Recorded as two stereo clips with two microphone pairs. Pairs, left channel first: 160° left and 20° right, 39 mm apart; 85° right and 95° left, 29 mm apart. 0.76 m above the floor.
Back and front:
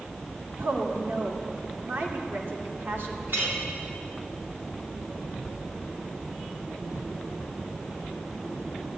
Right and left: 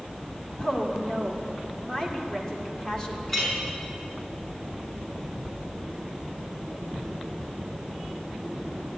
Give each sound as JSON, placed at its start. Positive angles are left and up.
{"t": 0.6, "sound": "a woman speaking", "azimuth_deg": -10, "distance_m": 2.5}
{"t": 3.3, "sound": "a clink", "azimuth_deg": 0, "distance_m": 5.0}